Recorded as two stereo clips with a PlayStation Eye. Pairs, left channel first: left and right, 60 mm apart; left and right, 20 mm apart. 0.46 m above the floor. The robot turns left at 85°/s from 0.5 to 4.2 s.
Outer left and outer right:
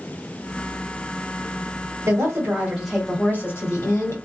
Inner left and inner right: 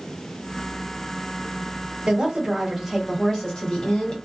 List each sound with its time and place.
2.1 s a woman speaking: 105° right, 1.4 m; by 4.2 s 80° left, 1.4 m